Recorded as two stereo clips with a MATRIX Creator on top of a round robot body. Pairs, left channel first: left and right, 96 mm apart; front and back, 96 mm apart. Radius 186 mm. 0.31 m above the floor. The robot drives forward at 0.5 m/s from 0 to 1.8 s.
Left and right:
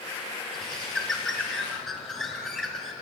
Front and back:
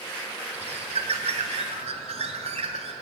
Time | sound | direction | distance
0.5 | a bird | straight behind | 1.5 m